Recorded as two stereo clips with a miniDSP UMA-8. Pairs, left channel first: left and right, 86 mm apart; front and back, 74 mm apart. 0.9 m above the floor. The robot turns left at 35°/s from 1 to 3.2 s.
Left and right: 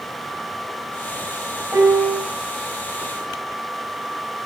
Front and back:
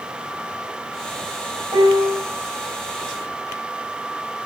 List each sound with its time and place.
1.7 s a piano: 150° right, 5 m; by 2.2 s 165° right, 5 m